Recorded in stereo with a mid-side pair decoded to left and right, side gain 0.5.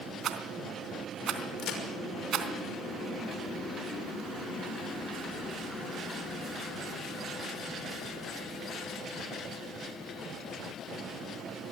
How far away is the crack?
About 6 m.